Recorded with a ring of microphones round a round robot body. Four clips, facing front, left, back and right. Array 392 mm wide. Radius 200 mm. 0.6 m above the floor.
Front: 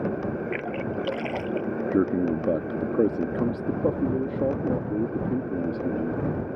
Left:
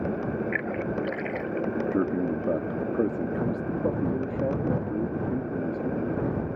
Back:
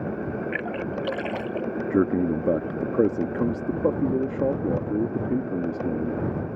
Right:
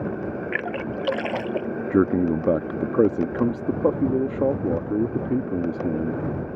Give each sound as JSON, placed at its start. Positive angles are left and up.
{"t": 0.5, "sound": "a splash", "azimuth_deg": -95}
{"t": 1.9, "sound": "a man speaking", "azimuth_deg": -105}